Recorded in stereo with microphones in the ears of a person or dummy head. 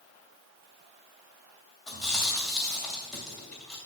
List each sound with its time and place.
1.9 s chewing: 5° left (ahead or behind), 2.5 m